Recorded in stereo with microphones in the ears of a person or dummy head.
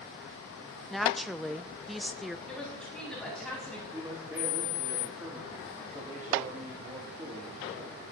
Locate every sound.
0.9 s a woman speaking: centre (ahead or behind), 0.7 m
2.5 s a woman speaking: 5° left (ahead or behind), 8.5 m
3.9 s a man speaking: 15° right (ahead or behind), 3 m